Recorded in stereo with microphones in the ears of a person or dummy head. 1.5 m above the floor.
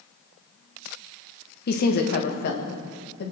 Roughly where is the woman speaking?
Left.